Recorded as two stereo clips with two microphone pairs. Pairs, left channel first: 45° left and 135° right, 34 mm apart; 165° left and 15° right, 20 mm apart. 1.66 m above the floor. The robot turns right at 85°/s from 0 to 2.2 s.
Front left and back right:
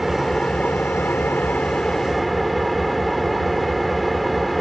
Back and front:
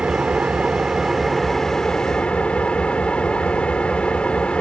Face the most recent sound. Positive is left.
turn(degrees=135)